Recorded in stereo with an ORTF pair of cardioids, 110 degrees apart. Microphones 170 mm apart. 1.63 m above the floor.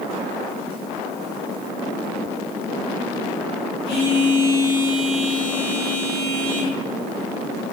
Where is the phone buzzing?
35° left, 2.5 m.